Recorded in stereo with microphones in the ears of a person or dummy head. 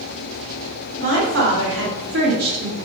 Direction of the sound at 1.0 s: 60° right (ahead or behind).